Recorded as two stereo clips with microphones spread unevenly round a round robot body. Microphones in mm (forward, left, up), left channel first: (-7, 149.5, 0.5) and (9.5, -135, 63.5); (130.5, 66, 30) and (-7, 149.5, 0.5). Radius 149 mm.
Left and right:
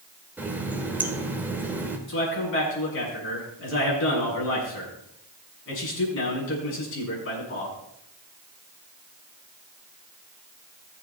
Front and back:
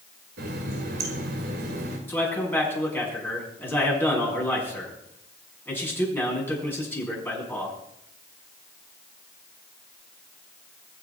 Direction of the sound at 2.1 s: 45° left.